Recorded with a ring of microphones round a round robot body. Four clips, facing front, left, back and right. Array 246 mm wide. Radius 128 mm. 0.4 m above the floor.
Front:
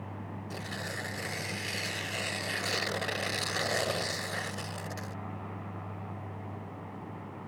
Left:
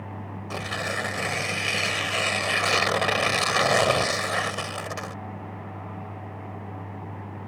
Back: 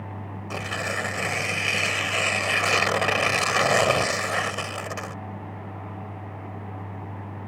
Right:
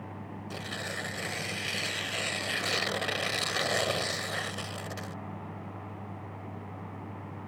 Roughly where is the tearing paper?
Behind left.